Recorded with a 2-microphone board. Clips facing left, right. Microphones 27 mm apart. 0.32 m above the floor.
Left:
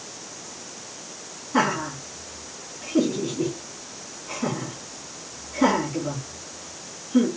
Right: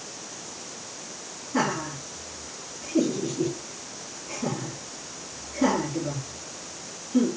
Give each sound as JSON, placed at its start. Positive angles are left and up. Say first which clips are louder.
{"t": 1.5, "sound": "laughter", "louder": "left 4 dB", "side_deg": 60, "distance_m": 3.0}